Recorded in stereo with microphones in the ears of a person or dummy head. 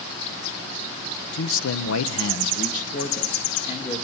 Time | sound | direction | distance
1.3 | a man speaking | 60° left (ahead or behind) | 1.0 m